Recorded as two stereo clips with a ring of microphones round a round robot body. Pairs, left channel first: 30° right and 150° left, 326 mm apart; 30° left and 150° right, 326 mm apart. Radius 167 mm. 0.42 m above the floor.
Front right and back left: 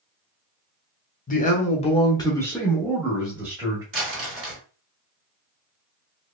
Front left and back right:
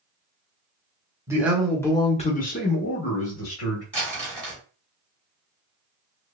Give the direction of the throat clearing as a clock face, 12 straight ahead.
I don't hear throat clearing.